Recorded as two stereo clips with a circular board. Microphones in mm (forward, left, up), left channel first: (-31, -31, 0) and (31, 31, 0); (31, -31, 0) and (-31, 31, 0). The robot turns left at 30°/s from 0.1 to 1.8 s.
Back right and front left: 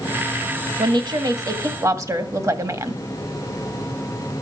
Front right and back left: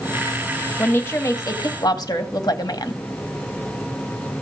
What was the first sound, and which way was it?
A woman speaking, 25° left.